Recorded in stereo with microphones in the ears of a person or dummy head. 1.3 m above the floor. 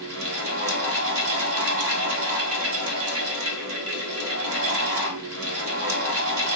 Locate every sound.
0.0 s a fan: 70° right (ahead or behind), 1.1 m